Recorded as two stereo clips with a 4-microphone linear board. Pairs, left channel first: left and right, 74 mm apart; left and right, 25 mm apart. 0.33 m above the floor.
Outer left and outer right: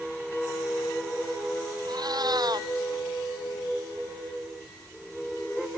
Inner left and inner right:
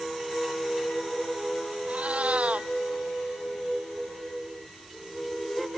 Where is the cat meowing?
65° right (ahead or behind).